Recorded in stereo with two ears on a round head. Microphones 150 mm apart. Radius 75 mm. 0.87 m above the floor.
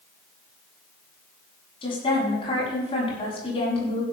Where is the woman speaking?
35° left (ahead or behind), 7.5 m.